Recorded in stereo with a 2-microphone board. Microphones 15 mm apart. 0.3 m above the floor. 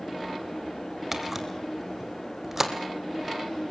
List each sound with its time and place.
1.1 s a camera shutter: 15° right (ahead or behind), 2.5 m